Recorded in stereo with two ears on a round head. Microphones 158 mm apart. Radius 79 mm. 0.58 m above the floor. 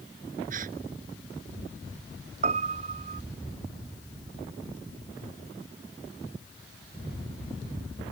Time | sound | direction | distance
0.5 | a gasp | 50° right (ahead or behind) | ?
2.4 | a piano | 40° right (ahead or behind) | ?